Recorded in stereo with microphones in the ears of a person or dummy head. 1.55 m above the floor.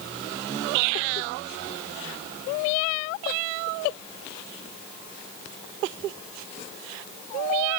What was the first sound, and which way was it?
Only background noise.